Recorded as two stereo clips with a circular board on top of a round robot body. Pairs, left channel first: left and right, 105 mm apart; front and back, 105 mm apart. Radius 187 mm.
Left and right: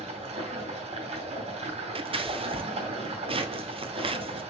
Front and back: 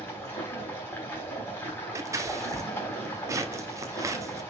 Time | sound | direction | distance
0.0 | running water | 70° right | 3.5 m
1.9 | scissors | 120° right | 1.3 m